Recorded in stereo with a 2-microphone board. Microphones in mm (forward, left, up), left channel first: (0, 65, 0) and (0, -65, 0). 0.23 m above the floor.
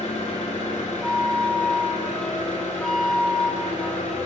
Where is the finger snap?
No finger snap in this recording.